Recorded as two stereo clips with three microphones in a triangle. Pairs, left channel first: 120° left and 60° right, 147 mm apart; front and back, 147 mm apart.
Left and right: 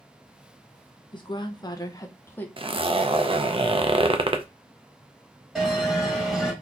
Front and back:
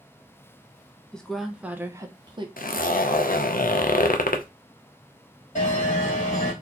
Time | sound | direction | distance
1.1 | a woman speaking | 80° left | 0.9 m
2.6 | a zipper | 5° right | 0.6 m
5.5 | a bell | 30° left | 1.7 m